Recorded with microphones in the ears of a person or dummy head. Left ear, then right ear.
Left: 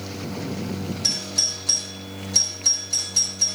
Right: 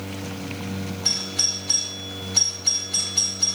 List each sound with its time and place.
1.0 s a doorbell: 85° left, 6 m